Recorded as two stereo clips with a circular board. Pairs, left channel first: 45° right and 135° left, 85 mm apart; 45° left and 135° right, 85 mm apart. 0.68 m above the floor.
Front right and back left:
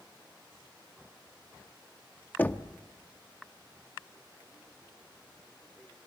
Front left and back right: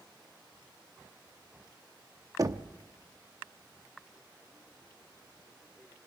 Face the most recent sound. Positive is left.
turn(degrees=-110)